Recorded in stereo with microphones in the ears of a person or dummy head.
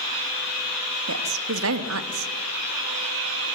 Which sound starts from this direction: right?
A woman speaking, at 1.1 s.